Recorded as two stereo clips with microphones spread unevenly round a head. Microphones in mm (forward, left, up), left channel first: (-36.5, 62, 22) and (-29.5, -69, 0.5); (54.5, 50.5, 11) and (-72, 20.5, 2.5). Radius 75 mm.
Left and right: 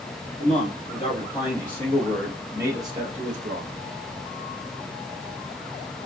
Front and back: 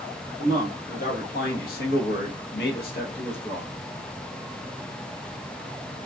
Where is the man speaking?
35° left, 1.5 m; by 3.7 s 55° right, 0.8 m.